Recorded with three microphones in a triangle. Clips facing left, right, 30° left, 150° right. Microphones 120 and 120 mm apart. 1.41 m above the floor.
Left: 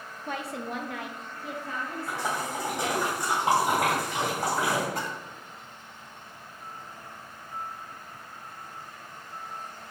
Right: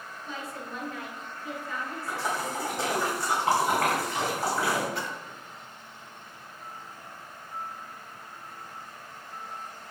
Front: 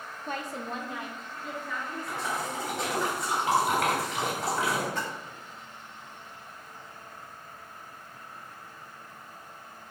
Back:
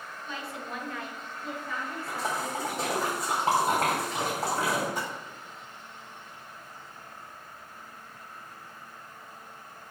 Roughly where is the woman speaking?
Ahead left.